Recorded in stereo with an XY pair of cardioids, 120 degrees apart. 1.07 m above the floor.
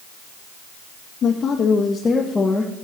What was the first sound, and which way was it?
A woman speaking, 50° left.